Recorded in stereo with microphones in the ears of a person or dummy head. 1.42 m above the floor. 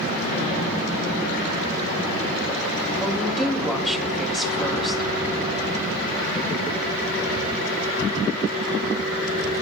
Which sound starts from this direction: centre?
A woman speaking, at 3.0 s.